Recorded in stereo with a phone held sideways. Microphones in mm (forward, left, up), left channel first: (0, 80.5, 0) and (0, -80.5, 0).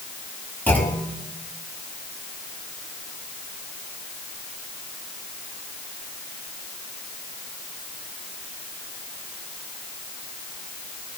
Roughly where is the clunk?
Centre.